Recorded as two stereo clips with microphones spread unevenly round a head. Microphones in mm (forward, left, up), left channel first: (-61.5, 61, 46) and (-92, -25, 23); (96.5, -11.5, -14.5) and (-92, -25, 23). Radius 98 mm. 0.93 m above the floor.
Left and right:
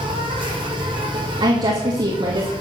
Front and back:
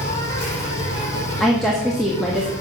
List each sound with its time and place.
0.0 s an insect: 55° right, 6.5 m
1.4 s a woman speaking: 80° right, 1.7 m